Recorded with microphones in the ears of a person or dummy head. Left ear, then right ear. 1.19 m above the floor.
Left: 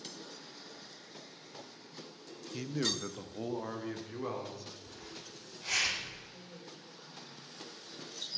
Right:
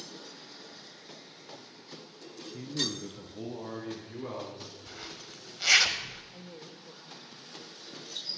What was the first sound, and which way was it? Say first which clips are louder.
A man speaking: right 1 dB; 85° left.